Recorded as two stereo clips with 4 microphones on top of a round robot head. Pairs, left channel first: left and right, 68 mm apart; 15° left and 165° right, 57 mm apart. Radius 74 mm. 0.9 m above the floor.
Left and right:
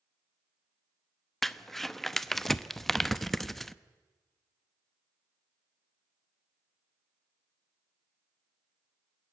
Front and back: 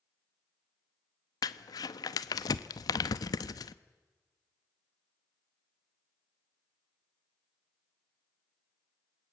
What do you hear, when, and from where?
1.4 s crumpling: 5° left, 0.6 m